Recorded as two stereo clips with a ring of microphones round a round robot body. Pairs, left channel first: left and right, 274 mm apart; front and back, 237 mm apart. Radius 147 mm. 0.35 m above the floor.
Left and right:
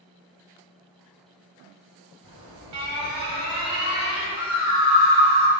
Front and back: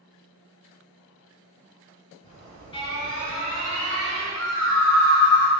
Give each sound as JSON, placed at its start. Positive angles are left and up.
{"t": 2.2, "sound": "an alarm", "azimuth_deg": -70, "distance_m": 2.0}
{"t": 4.3, "sound": "a scream", "azimuth_deg": -75, "distance_m": 1.9}